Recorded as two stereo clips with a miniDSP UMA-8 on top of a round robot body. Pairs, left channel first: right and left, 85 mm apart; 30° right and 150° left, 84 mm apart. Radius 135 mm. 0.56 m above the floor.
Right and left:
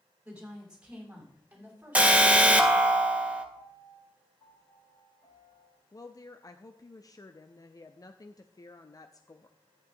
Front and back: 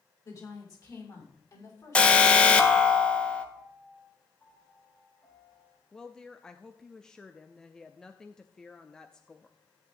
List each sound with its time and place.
0.2 s a woman speaking: 15° left, 6 m; by 3.0 s 20° left, 5 m
1.9 s an alarm: 35° left, 1.6 m
3.5 s a piano: 75° right, 8 m
5.9 s a woman speaking: 110° right, 0.8 m